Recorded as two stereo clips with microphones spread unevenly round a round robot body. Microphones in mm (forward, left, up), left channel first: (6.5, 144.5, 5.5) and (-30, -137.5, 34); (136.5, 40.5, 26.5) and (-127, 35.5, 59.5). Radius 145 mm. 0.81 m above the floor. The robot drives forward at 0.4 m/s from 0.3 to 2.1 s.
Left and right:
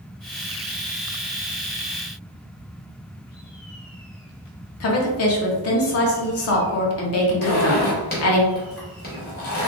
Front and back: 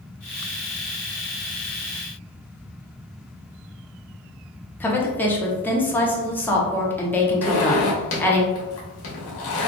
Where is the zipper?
25° left, 1.1 m.